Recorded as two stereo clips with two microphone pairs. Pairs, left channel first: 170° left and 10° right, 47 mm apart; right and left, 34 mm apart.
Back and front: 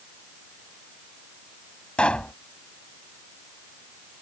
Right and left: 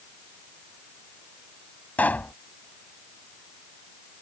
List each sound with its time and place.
2.0 s a pop: 125° right